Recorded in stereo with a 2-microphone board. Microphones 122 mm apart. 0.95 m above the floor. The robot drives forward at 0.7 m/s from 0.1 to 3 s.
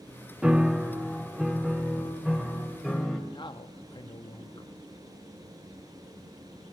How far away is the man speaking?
About 1.1 m.